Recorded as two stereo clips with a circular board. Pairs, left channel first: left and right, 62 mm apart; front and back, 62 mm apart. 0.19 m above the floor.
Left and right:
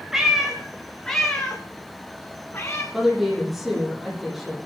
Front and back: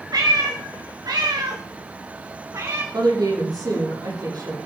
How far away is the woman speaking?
About 8.5 m.